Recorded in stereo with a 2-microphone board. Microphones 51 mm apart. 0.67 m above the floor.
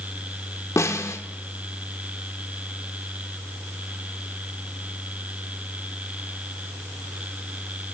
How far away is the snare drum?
About 0.8 m.